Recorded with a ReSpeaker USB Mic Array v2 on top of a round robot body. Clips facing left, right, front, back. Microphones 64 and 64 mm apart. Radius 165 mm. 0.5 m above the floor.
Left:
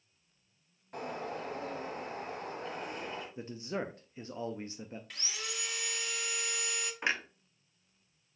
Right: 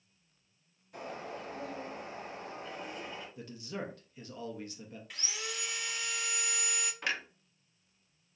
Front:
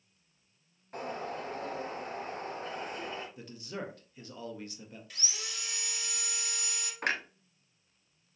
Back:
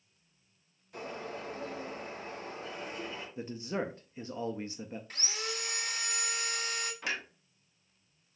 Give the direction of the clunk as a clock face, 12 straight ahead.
11 o'clock.